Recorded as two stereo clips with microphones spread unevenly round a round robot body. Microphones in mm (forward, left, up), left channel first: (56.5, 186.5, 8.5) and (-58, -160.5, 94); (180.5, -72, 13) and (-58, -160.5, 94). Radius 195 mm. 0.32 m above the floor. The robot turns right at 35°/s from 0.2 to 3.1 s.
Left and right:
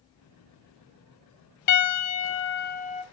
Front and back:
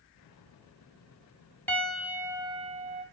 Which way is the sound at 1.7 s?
95° left.